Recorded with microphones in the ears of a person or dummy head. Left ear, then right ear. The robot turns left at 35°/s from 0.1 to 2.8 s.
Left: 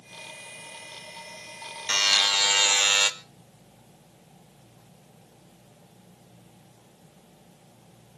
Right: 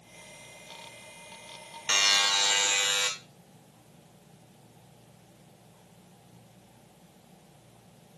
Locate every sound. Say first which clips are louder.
1.9 s a buzzer: left 2 dB; 170° right, 1.0 m; by 3.1 s 155° left, 1.0 m